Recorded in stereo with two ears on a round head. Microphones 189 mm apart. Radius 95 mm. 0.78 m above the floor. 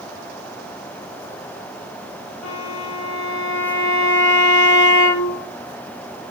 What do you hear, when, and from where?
2.4 s a violin: 70° left (ahead or behind), 5.5 m